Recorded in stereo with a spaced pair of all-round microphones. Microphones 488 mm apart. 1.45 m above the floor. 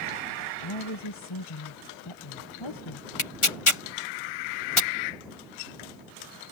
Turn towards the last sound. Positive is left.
turn(degrees=80)